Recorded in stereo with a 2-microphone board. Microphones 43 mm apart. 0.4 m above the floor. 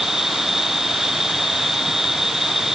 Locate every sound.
0.0 s an insect: 10° right (ahead or behind)